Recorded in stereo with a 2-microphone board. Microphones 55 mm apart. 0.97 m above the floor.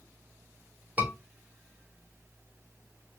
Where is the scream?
25° right (ahead or behind), 2.5 m.